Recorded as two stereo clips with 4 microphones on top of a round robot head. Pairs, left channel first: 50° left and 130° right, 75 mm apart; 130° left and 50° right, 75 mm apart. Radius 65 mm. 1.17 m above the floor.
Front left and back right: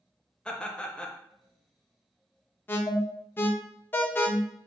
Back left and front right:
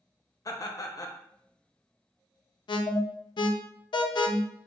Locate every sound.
0.5 s laughter: 125° left, 0.8 m
2.7 s an alarm: 115° left, 0.5 m